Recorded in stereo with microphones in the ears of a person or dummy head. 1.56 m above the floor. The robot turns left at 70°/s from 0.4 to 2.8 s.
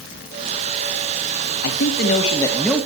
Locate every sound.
1.6 s a man speaking: 80° left, 3 m; by 2.9 s straight ahead, 3 m